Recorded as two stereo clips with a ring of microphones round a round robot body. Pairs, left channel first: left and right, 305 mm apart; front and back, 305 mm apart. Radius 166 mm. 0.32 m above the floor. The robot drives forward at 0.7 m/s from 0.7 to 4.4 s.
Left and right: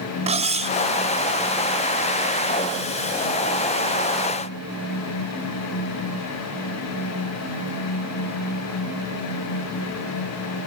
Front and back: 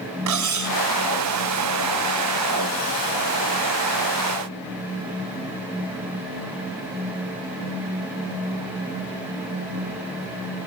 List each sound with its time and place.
0.3 s cutlery clinking: 160° right, 1.4 m